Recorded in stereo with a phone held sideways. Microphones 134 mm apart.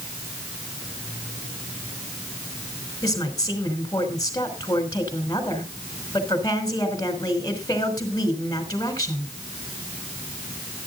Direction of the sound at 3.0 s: 25° left (ahead or behind).